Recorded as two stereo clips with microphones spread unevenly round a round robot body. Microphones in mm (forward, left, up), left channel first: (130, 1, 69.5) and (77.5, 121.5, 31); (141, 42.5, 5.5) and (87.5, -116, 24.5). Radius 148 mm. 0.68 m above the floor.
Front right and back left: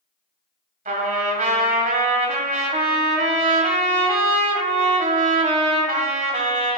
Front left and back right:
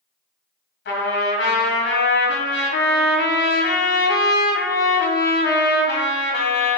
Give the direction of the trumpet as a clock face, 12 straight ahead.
9 o'clock.